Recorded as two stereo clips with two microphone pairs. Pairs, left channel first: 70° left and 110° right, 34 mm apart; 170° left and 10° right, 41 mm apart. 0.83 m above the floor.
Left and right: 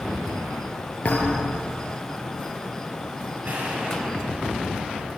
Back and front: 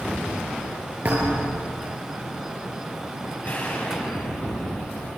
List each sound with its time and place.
1.1 s a thud: 35° left, 6 m
3.4 s an explosion: 140° right, 6 m